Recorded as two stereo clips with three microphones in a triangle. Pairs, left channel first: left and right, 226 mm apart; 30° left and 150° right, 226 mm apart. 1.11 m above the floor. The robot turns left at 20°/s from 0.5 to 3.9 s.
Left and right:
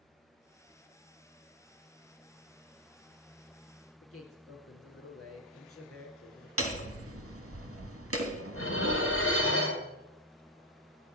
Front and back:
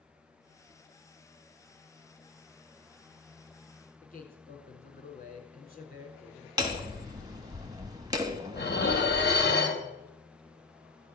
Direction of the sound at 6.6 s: 75° right.